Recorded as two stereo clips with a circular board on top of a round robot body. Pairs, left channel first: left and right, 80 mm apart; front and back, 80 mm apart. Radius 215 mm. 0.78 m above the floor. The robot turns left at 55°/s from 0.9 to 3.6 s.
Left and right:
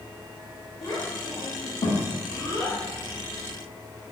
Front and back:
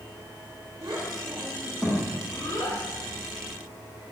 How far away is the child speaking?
About 1.3 m.